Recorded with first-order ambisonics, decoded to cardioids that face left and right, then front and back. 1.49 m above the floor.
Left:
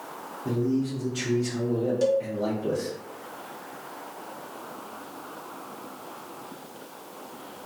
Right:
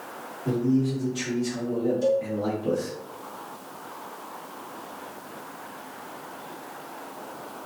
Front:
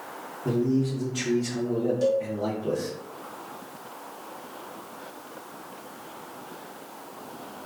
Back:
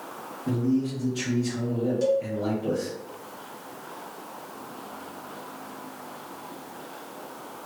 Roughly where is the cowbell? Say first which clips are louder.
Even, back 1 dB; left.